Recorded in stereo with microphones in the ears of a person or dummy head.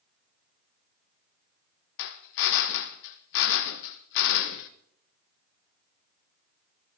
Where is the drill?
65° left (ahead or behind), 1.0 m.